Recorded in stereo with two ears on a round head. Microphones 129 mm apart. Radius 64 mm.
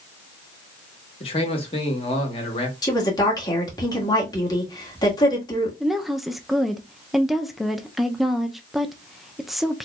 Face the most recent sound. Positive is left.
turn(degrees=0)  # may be behind; listen again after turning